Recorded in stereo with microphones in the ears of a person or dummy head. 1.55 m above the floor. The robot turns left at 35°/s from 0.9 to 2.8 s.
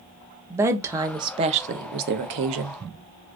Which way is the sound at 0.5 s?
15° right.